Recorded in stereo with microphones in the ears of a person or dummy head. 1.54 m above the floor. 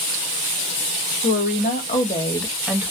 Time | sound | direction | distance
1.2 | a woman speaking | 60° left (ahead or behind) | 0.9 m